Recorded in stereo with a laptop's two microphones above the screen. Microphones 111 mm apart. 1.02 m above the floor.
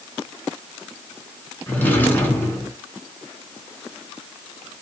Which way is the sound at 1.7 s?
15° left (ahead or behind).